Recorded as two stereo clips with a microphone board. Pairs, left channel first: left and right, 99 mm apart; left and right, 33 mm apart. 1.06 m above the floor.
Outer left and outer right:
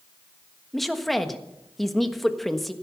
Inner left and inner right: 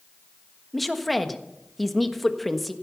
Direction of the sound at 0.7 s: Centre (ahead or behind).